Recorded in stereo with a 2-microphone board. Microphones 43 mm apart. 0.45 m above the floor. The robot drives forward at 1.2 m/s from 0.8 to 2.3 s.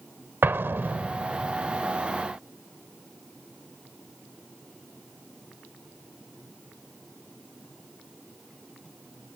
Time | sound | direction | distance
0.4 | an explosion | 65° right (ahead or behind) | ?